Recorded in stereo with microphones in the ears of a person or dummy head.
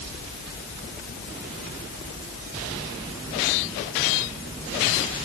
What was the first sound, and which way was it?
Only background noise.